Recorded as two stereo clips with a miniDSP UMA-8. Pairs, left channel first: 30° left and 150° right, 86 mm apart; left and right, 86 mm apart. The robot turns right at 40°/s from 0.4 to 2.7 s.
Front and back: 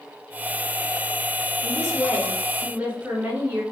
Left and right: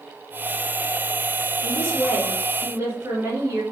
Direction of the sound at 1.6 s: 135° right.